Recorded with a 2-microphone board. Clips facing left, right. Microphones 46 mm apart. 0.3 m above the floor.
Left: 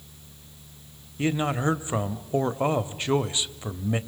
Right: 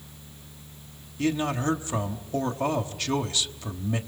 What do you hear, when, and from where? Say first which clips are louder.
1.2 s a man speaking: left 1 dB; 20° left (ahead or behind), 1.0 m